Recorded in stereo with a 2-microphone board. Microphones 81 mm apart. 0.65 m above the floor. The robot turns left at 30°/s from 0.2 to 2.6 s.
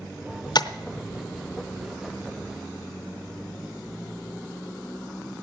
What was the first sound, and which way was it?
Tapping, 60° left (ahead or behind).